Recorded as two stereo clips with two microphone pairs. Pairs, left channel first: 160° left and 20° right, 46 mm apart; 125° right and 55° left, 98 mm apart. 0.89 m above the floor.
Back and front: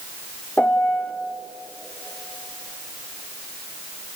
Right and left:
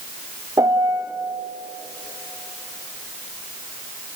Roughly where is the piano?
Left.